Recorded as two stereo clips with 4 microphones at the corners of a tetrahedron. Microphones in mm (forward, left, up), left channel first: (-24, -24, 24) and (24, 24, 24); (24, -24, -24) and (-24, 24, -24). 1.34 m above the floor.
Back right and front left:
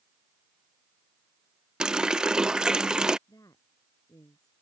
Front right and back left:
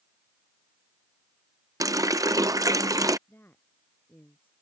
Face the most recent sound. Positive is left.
turn(degrees=-105)